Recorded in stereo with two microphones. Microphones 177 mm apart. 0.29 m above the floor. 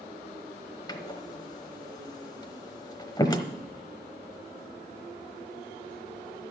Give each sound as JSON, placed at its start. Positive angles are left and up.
{"t": 0.9, "sound": "a door slam", "side_deg": 25, "distance_m": 1.1}